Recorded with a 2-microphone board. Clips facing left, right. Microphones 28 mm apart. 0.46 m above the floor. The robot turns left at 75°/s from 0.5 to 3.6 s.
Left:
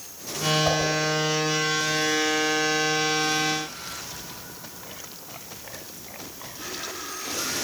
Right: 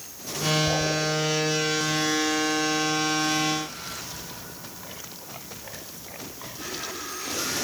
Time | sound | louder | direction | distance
0.7 | a whoosh | left 2 dB | 75° left (ahead or behind) | 3 m